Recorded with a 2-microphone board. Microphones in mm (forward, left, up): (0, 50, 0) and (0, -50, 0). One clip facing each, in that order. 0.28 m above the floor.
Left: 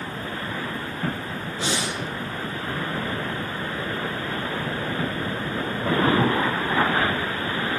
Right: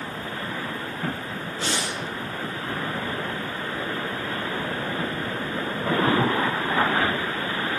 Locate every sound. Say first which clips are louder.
1.6 s breathing: left 2 dB; 15° left (ahead or behind), 4.5 m